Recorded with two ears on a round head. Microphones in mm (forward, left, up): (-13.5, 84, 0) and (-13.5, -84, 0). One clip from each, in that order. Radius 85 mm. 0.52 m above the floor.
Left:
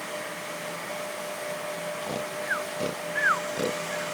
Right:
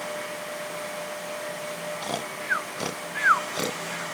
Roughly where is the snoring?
Right.